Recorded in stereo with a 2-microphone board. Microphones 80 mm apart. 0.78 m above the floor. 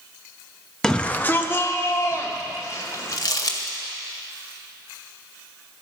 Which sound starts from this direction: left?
Crumpling, at 3.1 s.